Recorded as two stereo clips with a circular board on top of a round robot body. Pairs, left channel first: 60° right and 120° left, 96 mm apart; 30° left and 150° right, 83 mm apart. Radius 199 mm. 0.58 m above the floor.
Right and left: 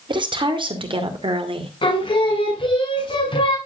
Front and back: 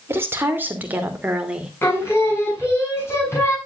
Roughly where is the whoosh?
I don't hear a whoosh.